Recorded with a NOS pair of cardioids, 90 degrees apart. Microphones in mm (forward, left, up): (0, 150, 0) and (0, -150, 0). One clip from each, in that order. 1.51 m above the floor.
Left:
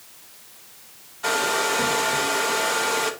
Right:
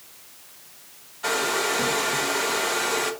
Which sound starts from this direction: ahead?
A hair dryer, at 1.2 s.